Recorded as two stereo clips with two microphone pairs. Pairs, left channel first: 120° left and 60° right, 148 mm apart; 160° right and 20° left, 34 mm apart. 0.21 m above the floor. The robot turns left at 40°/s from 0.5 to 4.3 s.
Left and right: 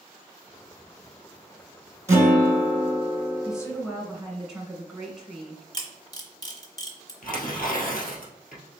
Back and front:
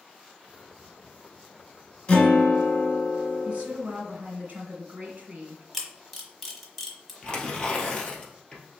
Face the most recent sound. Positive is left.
turn(degrees=135)